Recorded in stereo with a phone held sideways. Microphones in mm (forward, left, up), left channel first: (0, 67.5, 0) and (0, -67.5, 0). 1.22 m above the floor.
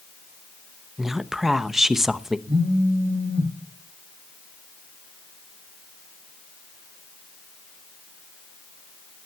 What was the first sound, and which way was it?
A woman speaking, 5° right (ahead or behind).